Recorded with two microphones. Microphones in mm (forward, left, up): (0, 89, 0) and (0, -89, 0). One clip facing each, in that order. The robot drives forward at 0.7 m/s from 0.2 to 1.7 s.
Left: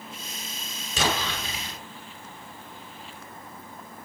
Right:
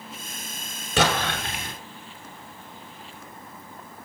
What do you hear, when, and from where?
1.0 s an explosion: 65° right (ahead or behind), 5 m; by 1.8 s 55° right (ahead or behind), 5 m